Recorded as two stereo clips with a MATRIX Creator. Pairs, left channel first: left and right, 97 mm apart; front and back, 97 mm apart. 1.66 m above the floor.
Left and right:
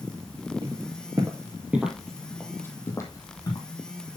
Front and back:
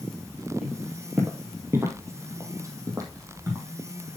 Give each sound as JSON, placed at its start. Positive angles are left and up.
{"t": 0.6, "sound": "footsteps", "azimuth_deg": -100, "distance_m": 2.5}